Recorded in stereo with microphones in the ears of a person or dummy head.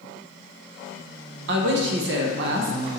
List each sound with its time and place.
1.5 s a man speaking: 65° right (ahead or behind), 0.7 m